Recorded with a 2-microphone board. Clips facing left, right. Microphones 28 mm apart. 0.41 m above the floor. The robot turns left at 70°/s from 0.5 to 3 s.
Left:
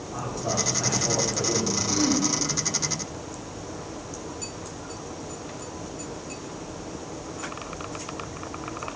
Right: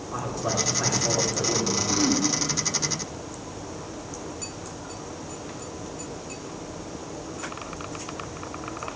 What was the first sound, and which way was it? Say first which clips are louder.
A man speaking: right 1 dB; 125° right.